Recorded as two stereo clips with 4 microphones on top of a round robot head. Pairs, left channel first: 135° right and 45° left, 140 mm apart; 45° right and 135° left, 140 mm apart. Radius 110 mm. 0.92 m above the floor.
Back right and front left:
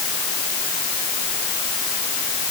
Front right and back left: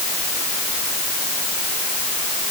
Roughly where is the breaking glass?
No breaking glass in this recording.